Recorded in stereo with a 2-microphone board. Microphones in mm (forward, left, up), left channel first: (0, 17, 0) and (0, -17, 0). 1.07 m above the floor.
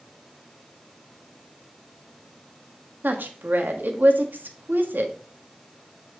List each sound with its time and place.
3.0 s a woman speaking: 80° right, 1.5 m